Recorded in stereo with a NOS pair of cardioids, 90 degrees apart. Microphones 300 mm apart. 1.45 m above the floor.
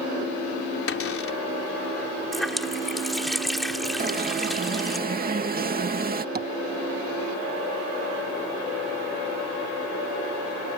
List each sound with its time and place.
0.9 s a cupboard door: 45° left
2.3 s a running tap: straight ahead
4.0 s an alarm: 30° right
6.3 s tapping: 30° right